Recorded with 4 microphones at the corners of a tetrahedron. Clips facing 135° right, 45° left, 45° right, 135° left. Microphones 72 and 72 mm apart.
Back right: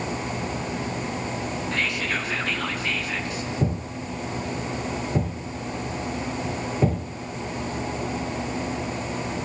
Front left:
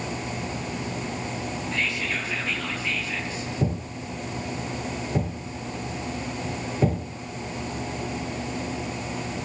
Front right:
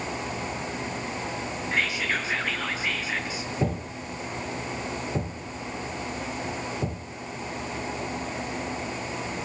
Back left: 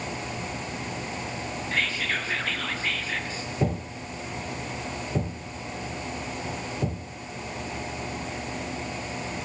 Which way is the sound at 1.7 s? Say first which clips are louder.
Back right 1 dB, front right 1 dB; 120° right.